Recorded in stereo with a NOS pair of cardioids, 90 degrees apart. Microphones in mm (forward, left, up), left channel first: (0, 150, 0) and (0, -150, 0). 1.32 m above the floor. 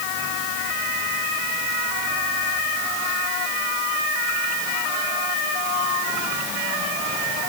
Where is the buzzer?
No buzzer in this recording.